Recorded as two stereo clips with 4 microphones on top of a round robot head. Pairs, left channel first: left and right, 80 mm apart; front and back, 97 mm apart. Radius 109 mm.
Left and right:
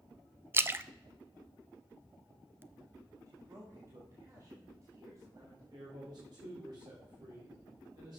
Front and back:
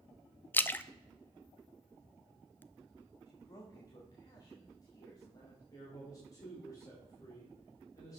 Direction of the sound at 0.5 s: 55° right.